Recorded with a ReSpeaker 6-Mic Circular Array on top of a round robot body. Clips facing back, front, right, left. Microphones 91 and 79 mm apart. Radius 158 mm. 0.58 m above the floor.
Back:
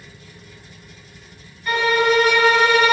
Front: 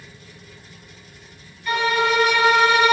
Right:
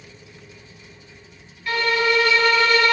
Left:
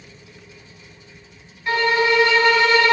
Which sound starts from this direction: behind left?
A violin, at 1.7 s.